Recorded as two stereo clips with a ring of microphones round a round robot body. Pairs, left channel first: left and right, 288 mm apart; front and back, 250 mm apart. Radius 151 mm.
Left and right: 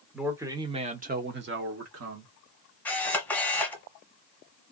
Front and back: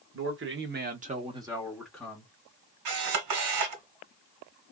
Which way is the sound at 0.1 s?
175° right.